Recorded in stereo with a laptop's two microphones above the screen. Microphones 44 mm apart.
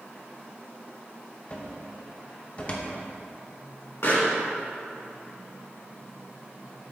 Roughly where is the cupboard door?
Left.